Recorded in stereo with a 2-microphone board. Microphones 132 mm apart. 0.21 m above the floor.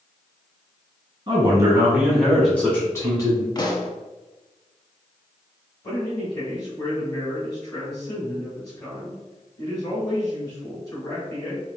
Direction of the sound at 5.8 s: 30° left (ahead or behind).